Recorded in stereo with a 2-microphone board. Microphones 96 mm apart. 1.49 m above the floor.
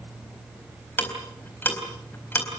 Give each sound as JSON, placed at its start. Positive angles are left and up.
{"t": 1.0, "sound": "ticking", "side_deg": 20, "distance_m": 4.0}